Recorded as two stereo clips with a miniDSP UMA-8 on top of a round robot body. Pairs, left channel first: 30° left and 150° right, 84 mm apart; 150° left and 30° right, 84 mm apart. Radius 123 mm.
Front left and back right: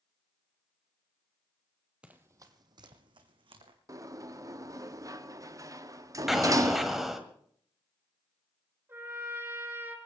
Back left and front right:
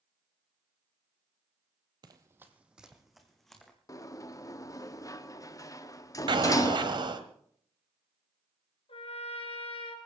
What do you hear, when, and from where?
2.0 s running footsteps: 70° right, 0.9 m; by 3.8 s 125° right, 3 m
3.9 s a sliding door: straight behind, 1.3 m
6.3 s an explosion: 60° right, 1.6 m
8.9 s a trumpet: 145° left, 3 m